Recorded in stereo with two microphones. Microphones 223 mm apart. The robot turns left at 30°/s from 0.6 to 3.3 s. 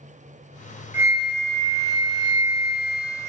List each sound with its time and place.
0.9 s a flute: 15° right, 0.7 m; by 3.3 s 85° right, 0.7 m